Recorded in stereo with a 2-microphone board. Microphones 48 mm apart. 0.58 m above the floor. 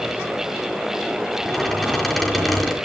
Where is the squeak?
Centre (ahead or behind), 4.5 m.